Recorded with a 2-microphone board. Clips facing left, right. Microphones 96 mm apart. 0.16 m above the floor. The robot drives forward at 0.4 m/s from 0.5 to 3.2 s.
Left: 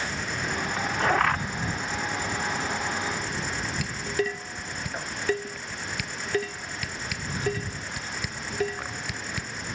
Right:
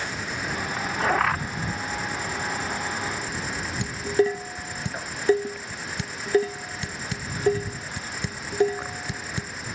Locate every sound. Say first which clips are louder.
0.0 s an insect: even; 5° right (ahead or behind)
3.8 s dishes clattering: right 8 dB; 30° right (ahead or behind)